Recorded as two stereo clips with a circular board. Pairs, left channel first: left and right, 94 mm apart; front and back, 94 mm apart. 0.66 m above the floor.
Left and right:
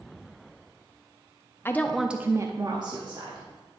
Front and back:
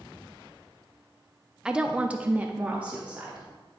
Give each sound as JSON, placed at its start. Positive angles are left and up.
{"t": 1.6, "sound": "a woman speaking", "azimuth_deg": 110, "distance_m": 0.6}